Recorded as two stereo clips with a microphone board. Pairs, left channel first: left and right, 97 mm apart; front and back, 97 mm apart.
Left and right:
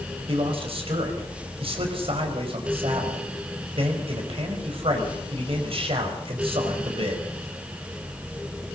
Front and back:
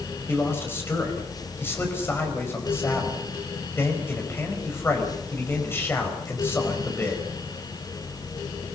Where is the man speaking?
70° right, 4.5 m.